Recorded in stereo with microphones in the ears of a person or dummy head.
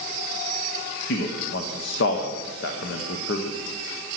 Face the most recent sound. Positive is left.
turn(degrees=70)  # may be behind; listen again after turning